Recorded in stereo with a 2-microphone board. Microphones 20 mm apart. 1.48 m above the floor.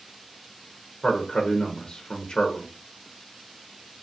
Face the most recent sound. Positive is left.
turn(degrees=40)  # may be behind; listen again after turning